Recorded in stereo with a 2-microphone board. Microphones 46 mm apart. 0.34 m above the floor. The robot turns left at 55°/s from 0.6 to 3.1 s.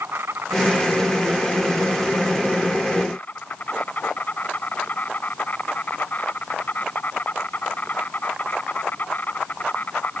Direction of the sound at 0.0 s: 90° right.